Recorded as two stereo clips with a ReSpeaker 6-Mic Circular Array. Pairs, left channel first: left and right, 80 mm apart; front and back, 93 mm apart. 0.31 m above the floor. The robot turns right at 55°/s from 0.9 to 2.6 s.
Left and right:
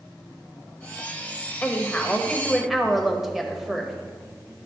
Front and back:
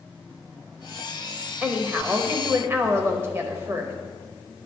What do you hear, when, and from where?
1.6 s a woman speaking: 125° left, 0.9 m; by 3.9 s straight behind, 0.9 m